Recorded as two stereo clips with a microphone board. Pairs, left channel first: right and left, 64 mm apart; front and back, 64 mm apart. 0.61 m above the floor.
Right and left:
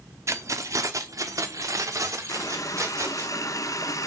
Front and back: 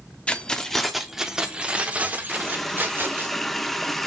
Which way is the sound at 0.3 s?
70° left.